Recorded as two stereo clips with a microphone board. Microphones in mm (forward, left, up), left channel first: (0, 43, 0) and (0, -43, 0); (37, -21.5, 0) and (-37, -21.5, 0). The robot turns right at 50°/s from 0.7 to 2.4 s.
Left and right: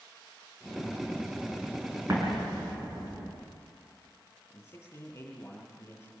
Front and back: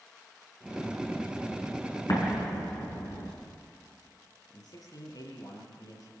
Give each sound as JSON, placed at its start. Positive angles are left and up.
{"t": 2.1, "sound": "an explosion", "azimuth_deg": -40, "distance_m": 5.0}
{"t": 4.5, "sound": "a man speaking", "azimuth_deg": 30, "distance_m": 9.0}